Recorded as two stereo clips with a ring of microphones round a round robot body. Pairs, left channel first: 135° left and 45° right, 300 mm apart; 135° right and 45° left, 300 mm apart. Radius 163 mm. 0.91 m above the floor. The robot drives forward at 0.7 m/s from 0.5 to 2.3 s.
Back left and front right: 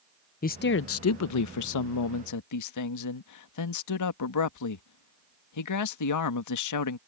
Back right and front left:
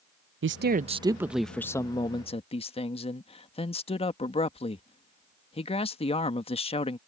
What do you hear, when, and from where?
0.4 s a man speaking: 85° left; by 7.0 s 155° left